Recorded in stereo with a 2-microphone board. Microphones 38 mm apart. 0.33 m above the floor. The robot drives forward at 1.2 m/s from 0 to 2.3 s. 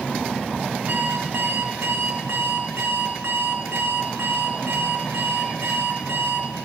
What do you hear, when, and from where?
0.9 s an alarm clock: 60° right (ahead or behind), 2.5 m; by 6.5 s 70° right (ahead or behind), 2.5 m